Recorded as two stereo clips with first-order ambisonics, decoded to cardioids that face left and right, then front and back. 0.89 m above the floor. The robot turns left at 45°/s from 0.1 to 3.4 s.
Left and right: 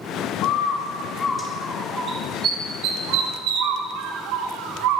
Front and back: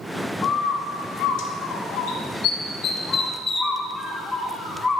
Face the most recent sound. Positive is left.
turn(degrees=-80)